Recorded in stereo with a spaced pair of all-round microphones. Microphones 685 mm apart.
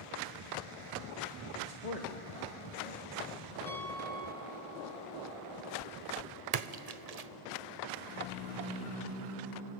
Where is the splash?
65° right (ahead or behind), 0.8 m.